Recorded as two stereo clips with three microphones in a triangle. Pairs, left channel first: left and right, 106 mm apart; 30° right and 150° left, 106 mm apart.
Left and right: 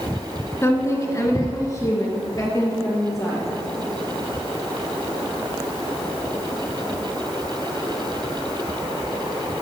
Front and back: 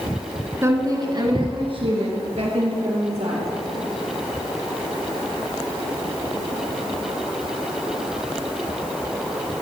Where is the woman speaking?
120° left, 1.6 m; by 3.5 s 150° left, 4 m.